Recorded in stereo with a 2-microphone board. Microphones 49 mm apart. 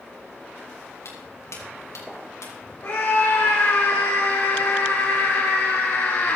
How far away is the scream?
About 3.5 m.